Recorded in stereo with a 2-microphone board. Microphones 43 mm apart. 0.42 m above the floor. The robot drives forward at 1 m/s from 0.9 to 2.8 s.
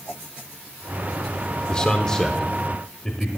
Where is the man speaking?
20° left (ahead or behind), 0.7 m; by 3.3 s 10° left (ahead or behind), 1.3 m.